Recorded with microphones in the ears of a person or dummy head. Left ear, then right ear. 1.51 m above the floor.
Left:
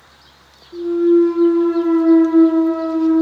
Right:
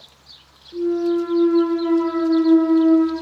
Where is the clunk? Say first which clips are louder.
Left 6 dB; 15° right (ahead or behind), 0.6 m.